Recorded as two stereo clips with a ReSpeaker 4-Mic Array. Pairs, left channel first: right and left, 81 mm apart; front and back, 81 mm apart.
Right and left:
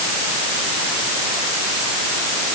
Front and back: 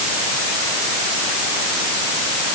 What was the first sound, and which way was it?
Only background noise.